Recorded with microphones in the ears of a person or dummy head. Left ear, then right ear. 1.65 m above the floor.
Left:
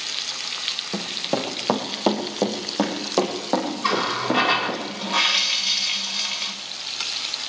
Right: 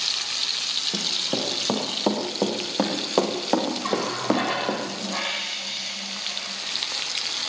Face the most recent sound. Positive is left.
turn(degrees=45)  # may be behind; listen again after turning